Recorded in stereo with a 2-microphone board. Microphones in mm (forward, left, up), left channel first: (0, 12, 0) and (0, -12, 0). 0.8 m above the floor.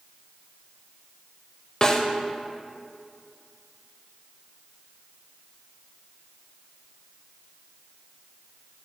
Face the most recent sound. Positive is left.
turn(degrees=25)  # may be behind; listen again after turning